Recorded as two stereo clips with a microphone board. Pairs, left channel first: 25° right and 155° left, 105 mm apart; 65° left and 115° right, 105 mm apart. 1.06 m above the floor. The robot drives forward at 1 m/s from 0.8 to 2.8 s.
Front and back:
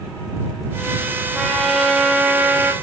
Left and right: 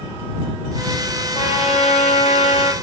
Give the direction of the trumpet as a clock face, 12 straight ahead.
10 o'clock.